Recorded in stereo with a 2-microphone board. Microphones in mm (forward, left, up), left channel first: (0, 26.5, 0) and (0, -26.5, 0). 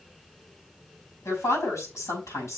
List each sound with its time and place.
1.2 s a woman speaking: 75° left (ahead or behind), 5.5 m